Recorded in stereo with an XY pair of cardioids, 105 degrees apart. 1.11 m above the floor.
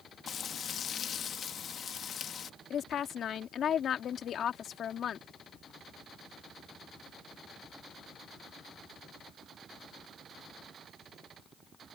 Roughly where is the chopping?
No chopping in this recording.